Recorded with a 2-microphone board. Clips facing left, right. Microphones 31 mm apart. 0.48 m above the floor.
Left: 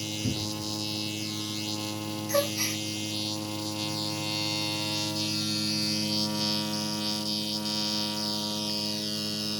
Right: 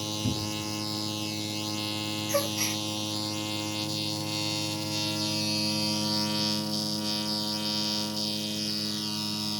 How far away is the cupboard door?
About 0.5 m.